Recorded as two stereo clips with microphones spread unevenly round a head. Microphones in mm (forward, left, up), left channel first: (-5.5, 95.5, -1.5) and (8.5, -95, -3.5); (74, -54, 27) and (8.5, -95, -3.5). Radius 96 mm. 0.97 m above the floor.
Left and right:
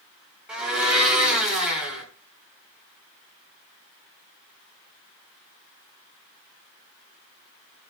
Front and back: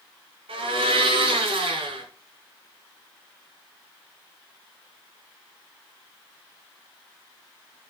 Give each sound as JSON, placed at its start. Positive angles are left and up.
{"t": 0.5, "sound": "a blender", "azimuth_deg": -170, "distance_m": 3.5}